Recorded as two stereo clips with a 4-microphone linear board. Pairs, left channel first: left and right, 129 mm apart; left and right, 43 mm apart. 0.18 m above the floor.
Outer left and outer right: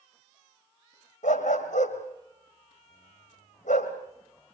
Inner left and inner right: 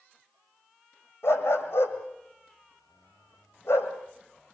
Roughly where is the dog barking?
Left.